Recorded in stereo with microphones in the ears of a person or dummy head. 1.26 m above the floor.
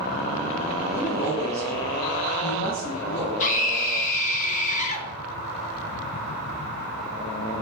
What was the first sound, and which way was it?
A woman speaking, 35° left (ahead or behind).